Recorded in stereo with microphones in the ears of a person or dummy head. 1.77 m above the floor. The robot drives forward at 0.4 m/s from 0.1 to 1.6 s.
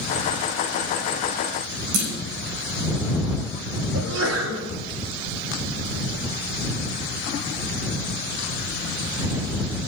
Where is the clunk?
75° right (ahead or behind), 6 m.